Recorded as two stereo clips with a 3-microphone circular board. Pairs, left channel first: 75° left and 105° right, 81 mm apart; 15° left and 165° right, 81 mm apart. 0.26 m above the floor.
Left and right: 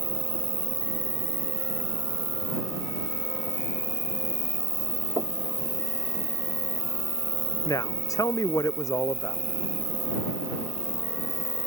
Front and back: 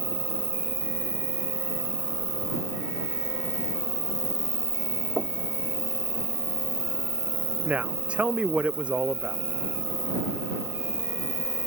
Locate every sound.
0.0 s an insect: 70° left
5.2 s knocking: 115° right
7.7 s a woman speaking: 120° left